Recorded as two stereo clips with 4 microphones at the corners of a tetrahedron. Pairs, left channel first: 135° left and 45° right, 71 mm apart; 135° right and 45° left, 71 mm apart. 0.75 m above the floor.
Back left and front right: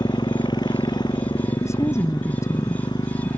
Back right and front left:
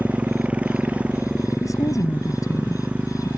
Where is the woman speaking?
175° right.